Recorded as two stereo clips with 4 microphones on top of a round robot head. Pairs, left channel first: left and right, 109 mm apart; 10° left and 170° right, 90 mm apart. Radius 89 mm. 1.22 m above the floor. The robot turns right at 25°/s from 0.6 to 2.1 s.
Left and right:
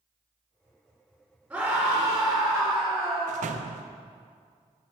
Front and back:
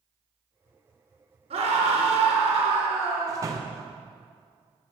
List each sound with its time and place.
1.5 s a scream: 175° right, 3.5 m; by 3.5 s 160° right, 3.5 m
3.3 s a door slam: 105° right, 0.6 m